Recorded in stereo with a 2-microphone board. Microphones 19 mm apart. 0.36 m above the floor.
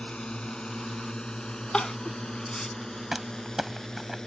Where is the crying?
50° left (ahead or behind).